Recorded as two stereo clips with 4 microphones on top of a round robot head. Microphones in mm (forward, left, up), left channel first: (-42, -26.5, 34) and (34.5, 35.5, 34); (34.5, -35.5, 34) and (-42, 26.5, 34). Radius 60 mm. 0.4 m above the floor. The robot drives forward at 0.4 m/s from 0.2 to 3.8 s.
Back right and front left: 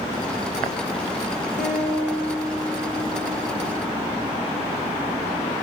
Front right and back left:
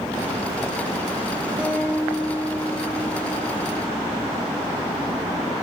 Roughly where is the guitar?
Behind right.